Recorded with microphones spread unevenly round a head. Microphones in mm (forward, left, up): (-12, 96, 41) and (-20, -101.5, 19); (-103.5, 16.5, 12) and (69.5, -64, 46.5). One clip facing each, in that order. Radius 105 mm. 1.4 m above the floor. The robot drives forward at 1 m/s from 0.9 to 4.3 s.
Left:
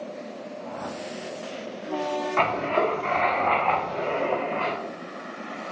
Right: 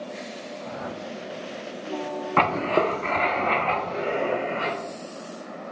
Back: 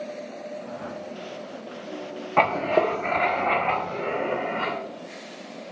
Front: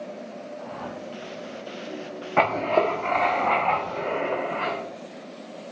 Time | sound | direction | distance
0.6 | a whoosh | 30° right | 5.5 m
2.4 | writing | 110° right | 1.0 m